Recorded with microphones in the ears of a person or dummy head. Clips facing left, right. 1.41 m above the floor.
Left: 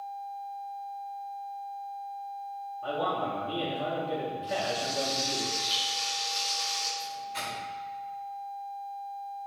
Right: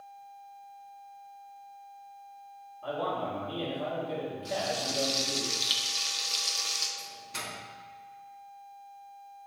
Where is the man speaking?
15° left (ahead or behind), 1.5 m.